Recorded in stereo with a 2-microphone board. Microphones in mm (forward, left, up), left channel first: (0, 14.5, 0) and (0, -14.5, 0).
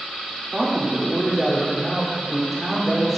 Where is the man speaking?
20° right (ahead or behind), 4 m; by 3.2 s 5° left (ahead or behind), 4 m.